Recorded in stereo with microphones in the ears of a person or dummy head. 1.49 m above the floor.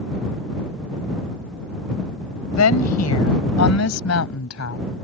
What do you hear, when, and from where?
2.5 s a woman speaking: 80° left; by 4.9 s 85° left